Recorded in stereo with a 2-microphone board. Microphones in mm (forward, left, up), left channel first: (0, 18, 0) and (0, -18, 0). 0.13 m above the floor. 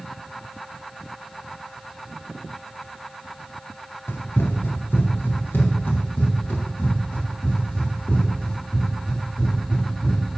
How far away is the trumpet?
No trumpet in this recording.